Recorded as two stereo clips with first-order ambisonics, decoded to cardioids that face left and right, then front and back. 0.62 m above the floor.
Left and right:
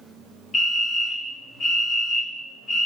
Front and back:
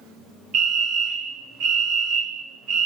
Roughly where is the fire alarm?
Behind left.